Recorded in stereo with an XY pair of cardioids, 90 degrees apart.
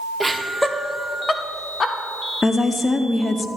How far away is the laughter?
About 0.8 m.